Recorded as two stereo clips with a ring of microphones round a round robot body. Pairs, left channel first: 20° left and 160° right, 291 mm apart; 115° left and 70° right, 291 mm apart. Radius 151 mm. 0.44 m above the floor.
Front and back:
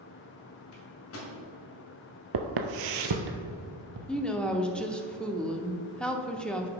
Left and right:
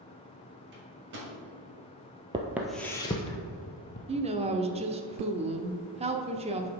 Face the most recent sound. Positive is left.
turn(degrees=-60)